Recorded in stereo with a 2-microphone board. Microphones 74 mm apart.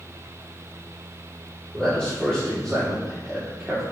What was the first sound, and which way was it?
A man speaking, 15° left (ahead or behind).